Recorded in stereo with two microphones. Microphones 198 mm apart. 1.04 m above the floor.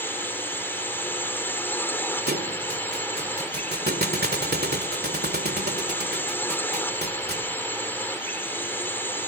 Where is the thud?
55° right (ahead or behind).